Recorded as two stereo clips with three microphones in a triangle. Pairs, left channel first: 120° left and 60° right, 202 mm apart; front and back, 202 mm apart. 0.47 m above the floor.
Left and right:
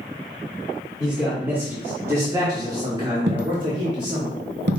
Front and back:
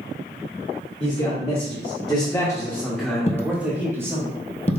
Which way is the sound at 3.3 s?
55° right.